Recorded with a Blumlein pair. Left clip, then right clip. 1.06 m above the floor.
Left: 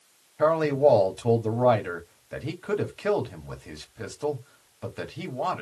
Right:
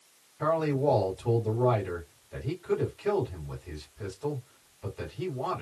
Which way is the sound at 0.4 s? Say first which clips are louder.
Left 6 dB; 50° left.